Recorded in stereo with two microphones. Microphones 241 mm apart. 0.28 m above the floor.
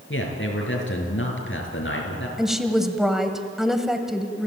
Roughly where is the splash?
I don't hear a splash.